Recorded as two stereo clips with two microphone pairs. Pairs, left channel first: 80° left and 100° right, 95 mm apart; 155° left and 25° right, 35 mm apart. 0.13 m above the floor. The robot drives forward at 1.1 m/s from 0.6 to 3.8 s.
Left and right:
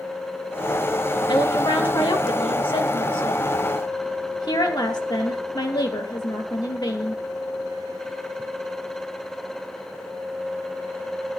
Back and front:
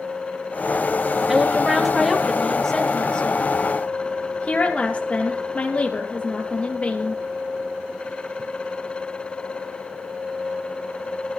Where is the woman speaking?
50° left, 3 m; by 7.2 s 115° left, 2.5 m.